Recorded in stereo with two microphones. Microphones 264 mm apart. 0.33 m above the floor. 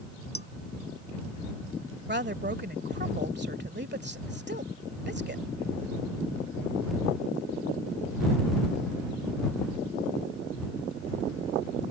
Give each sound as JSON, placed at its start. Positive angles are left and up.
{"t": 0.3, "sound": "dishes clattering", "side_deg": 35}
{"t": 2.1, "sound": "a woman speaking", "side_deg": -40}